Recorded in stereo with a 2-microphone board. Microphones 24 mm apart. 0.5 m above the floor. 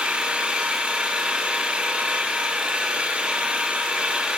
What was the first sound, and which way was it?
An engine running, 50° right (ahead or behind).